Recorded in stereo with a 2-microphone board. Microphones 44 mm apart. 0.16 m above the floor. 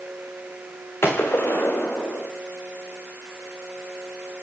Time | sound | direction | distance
1.0 | a gunshot | 75° left (ahead or behind) | 4.5 m